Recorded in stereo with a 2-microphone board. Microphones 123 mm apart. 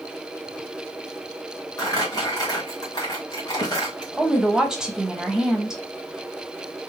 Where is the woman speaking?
5° right (ahead or behind), 1.0 m.